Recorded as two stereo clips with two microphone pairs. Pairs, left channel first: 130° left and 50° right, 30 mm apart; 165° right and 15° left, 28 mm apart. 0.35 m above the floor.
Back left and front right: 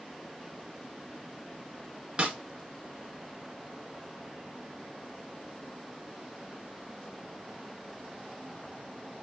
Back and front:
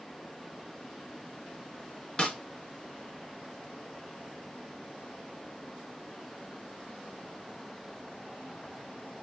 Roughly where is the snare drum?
Right.